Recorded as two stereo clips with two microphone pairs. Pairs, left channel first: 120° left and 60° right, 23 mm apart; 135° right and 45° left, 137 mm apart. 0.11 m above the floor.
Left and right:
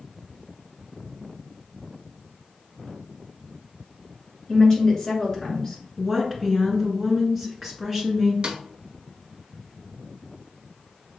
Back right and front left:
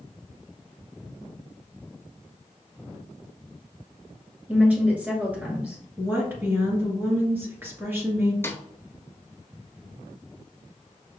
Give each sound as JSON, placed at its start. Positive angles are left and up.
{"t": 4.5, "sound": "a woman speaking", "azimuth_deg": 110, "distance_m": 1.7}
{"t": 6.0, "sound": "a woman speaking", "azimuth_deg": 10, "distance_m": 1.6}
{"t": 8.4, "sound": "a snare drum", "azimuth_deg": -70, "distance_m": 0.9}